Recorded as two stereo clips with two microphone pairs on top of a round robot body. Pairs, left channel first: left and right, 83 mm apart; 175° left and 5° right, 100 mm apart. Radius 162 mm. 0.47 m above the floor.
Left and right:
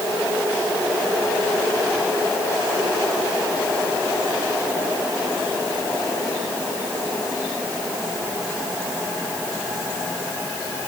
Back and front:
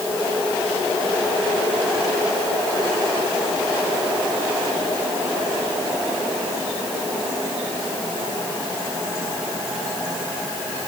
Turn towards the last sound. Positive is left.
No sound to turn to.